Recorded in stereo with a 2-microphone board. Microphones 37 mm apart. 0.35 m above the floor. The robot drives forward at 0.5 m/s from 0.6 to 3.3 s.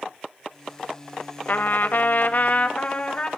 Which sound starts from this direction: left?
A trumpet, at 1.5 s.